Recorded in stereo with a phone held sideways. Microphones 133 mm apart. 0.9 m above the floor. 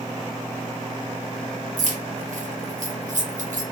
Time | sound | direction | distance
1.8 | keys jangling | 70° right (ahead or behind) | 0.6 m